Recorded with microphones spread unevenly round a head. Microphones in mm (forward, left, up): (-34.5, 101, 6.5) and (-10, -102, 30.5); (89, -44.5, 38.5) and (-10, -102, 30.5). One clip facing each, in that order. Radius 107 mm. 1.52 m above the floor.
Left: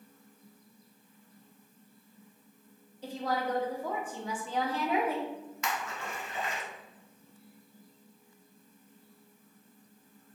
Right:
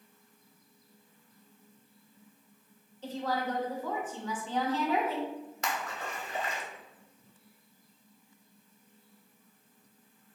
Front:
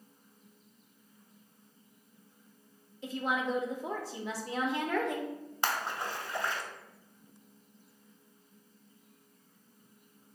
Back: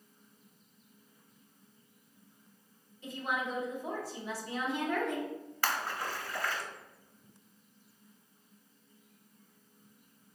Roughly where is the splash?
Ahead right.